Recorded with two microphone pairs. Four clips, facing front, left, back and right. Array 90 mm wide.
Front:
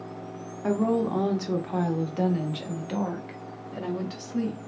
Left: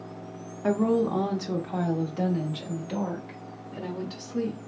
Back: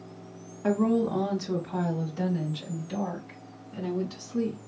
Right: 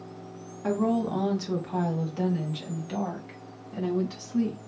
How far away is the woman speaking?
About 0.7 m.